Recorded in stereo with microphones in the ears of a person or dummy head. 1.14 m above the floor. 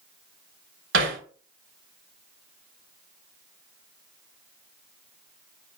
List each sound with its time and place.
0.9 s hammering: 70° right (ahead or behind), 2.5 m